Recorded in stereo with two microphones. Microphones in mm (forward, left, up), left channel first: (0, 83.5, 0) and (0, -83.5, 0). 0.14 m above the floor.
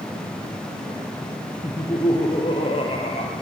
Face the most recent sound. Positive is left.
turn(degrees=40)  # may be behind; listen again after turning